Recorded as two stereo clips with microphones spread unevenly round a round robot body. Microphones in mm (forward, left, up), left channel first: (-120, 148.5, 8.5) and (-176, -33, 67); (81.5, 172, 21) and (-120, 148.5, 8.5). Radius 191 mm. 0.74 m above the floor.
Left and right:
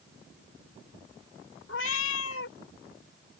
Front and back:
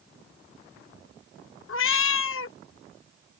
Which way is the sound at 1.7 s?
25° left.